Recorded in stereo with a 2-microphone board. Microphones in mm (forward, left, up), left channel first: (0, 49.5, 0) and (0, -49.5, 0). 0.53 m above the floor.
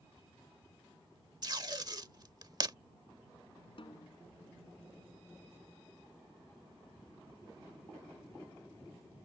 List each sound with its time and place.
1.4 s tape being pulled: 40° right (ahead or behind)
3.8 s a snare drum: 60° left (ahead or behind)